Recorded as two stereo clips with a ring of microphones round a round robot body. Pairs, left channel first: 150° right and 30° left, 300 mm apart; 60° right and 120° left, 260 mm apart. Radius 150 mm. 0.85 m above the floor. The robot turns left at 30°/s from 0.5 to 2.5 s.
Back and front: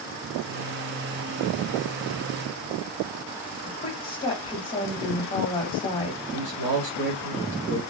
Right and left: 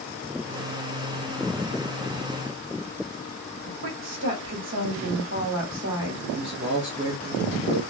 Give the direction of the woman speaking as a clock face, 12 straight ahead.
7 o'clock.